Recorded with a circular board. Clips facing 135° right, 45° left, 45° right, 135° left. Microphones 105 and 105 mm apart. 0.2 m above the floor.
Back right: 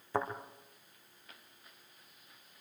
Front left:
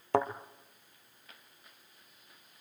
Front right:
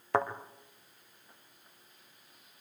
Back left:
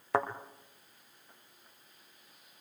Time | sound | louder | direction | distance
0.1 | a thud | front left 6 dB, front right 1 dB | 45° left | 1.9 m